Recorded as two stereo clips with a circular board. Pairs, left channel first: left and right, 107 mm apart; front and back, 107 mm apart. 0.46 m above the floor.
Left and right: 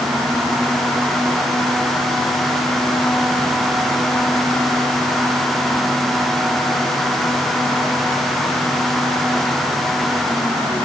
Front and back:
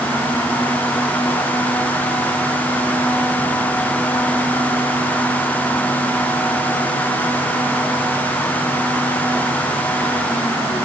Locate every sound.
Only background noise.